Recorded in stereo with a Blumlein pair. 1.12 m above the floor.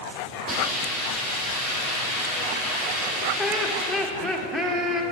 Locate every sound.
0.5 s a hiss: 30° right, 2.5 m
3.4 s laughter: 10° right, 1.0 m